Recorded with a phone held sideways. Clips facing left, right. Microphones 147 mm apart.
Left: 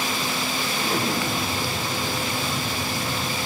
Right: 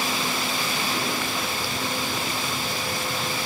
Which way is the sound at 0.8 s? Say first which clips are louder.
Left 3 dB; 45° left (ahead or behind).